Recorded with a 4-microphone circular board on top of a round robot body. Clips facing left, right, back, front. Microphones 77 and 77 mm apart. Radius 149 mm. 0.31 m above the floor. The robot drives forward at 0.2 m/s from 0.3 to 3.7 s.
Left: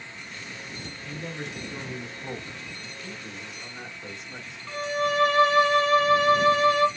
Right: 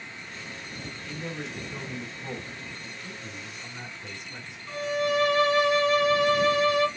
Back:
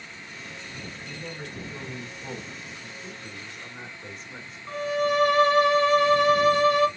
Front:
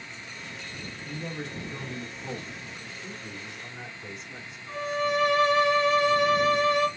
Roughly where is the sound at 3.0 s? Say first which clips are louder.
Left 1 dB, even; behind left.